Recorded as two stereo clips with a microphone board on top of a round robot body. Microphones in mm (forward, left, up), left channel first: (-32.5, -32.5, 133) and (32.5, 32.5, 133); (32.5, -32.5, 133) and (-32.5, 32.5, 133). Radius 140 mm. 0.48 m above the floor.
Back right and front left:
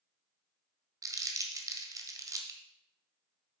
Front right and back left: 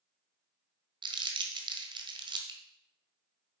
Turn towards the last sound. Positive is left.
turn(degrees=100)